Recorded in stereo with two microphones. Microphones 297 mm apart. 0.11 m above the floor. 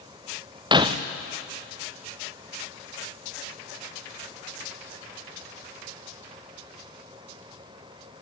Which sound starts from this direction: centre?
Breaking glass, at 0.7 s.